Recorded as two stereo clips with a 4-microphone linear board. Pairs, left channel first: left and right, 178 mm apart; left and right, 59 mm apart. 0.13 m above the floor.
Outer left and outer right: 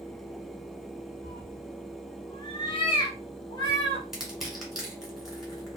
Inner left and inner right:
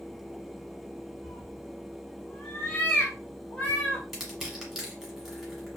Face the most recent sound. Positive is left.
turn(degrees=0)  # may be behind; listen again after turning